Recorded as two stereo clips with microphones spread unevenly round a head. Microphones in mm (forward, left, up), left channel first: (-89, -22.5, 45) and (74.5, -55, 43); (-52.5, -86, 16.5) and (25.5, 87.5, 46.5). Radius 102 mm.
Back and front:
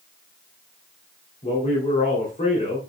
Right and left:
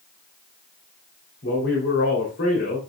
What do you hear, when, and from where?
1.4 s a man speaking: 145° right, 3 m